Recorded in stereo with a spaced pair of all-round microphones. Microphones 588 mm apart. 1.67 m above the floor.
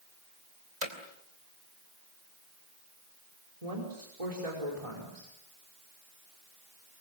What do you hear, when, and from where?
0.8 s hammering: 60° right (ahead or behind), 3 m
3.6 s a woman speaking: 75° right (ahead or behind), 5 m